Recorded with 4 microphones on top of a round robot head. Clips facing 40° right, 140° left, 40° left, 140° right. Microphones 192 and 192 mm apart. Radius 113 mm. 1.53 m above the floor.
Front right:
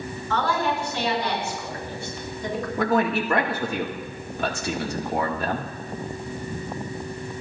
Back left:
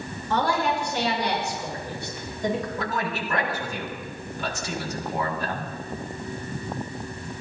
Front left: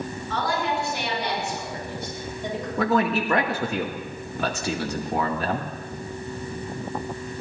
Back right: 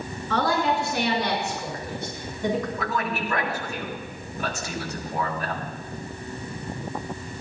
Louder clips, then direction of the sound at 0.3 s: Back left 1 dB, back right 4 dB; 145° right.